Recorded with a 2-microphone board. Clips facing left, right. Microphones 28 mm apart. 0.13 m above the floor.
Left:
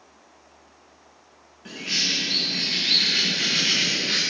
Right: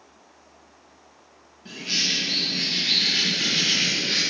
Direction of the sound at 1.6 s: 85° left.